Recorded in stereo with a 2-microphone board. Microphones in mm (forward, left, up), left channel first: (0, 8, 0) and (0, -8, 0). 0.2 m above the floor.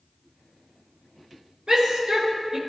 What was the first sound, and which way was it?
A shout, 45° right (ahead or behind).